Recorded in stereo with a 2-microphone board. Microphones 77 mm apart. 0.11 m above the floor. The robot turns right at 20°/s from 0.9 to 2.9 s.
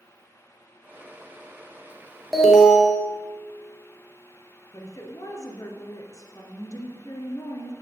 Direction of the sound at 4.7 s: 45° left (ahead or behind).